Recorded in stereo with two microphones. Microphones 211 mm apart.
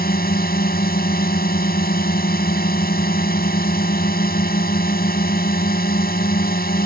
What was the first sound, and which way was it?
A drone, 45° left (ahead or behind).